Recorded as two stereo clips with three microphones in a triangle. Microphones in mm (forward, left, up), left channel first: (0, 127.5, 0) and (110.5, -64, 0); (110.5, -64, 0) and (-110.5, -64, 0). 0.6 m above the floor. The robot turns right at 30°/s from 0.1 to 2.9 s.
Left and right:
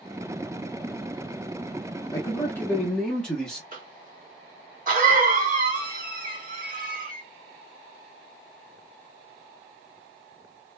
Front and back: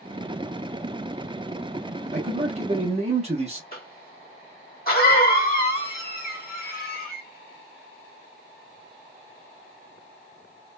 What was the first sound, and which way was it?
A man speaking, straight behind.